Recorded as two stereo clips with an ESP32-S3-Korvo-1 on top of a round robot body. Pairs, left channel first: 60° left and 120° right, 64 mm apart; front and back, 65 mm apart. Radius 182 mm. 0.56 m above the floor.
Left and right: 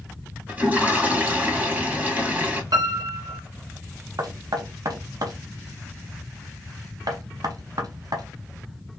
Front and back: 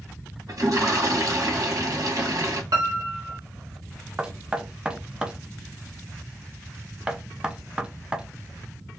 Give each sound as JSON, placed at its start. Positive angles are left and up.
{"t": 0.5, "sound": "a toilet flushing", "azimuth_deg": 180, "distance_m": 2.5}
{"t": 2.7, "sound": "a piano", "azimuth_deg": -145, "distance_m": 1.1}
{"t": 4.2, "sound": "knocking", "azimuth_deg": -105, "distance_m": 0.8}